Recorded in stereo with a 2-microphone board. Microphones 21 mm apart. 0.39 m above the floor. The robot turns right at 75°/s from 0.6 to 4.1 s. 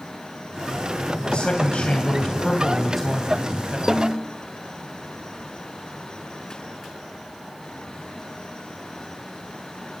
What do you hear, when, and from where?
1.3 s a man speaking: 55° left, 2.5 m; by 3.8 s 115° right, 2.5 m
3.9 s a snare drum: 5° left (ahead or behind), 1.4 m; by 4.2 s 15° left (ahead or behind), 1.4 m